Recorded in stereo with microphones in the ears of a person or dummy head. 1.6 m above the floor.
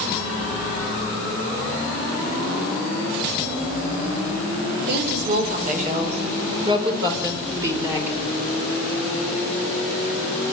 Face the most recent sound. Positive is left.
turn(degrees=-15)  # may be behind; listen again after turning